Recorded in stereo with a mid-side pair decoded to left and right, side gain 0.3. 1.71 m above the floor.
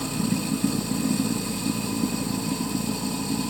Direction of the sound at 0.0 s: Straight ahead.